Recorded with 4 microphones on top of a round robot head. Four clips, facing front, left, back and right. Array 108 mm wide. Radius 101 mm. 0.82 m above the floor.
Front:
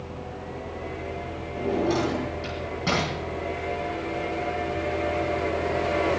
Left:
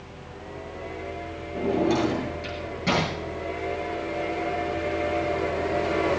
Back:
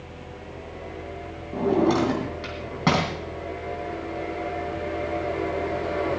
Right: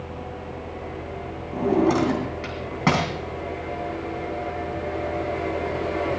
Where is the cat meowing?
No cat meowing in this recording.